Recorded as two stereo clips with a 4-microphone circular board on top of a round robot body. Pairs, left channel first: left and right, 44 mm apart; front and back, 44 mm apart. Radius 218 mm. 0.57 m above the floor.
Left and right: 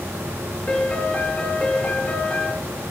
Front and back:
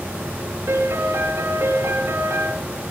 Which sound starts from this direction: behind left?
A piano, at 0.7 s.